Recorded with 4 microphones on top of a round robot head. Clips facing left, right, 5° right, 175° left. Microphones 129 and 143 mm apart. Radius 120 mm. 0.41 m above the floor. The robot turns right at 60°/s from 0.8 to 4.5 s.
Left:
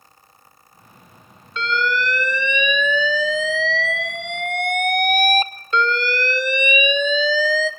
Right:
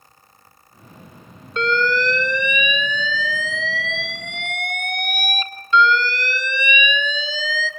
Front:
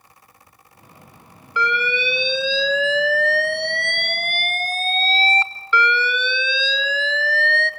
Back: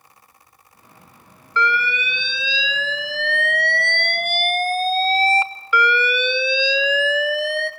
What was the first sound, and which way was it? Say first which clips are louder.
An alarm: right 3 dB, even; 75° right.